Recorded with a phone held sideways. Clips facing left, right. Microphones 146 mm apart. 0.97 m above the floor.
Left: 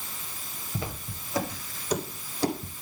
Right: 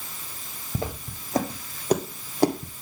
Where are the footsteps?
45° right (ahead or behind), 3 m; by 2.8 s 60° right (ahead or behind), 2.0 m.